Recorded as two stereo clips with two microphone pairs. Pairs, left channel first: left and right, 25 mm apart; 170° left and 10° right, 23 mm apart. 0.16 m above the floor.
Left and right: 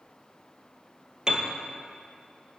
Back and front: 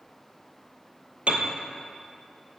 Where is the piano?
35° right, 1.1 m.